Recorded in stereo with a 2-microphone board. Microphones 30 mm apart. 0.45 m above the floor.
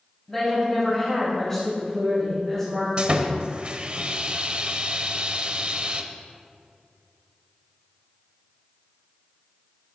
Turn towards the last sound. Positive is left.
turn(degrees=-40)  # may be behind; listen again after turning